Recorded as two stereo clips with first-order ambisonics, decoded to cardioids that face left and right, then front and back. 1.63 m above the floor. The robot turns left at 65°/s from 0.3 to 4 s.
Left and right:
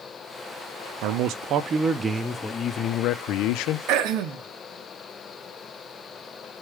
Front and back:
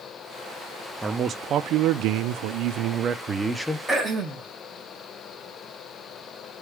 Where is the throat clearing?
100° right, 1.2 m; by 4.5 s 110° right, 1.2 m.